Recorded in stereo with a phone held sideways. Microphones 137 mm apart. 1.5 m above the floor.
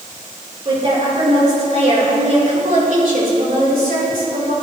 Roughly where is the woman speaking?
Right.